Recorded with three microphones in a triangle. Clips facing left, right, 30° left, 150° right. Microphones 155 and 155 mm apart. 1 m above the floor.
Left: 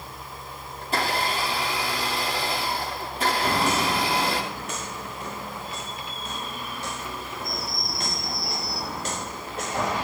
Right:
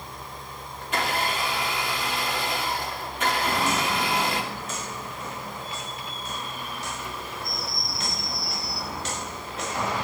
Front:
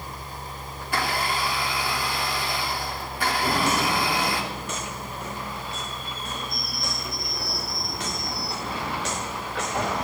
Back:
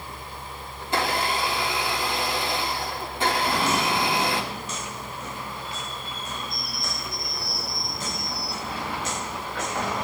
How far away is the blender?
About 3 m.